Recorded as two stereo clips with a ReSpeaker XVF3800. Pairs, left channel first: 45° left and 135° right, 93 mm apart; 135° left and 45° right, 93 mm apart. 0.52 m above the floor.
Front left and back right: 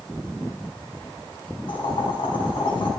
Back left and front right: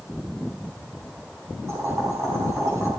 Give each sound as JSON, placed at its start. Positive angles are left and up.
{"t": 1.7, "sound": "boiling", "azimuth_deg": 15, "distance_m": 4.5}